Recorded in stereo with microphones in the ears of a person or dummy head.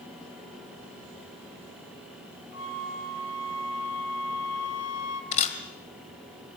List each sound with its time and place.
2.5 s a flute: 65° left (ahead or behind), 3 m
5.3 s a camera shutter: 35° left (ahead or behind), 2 m